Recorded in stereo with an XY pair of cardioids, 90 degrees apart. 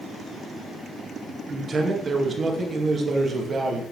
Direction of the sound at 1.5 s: 45° right.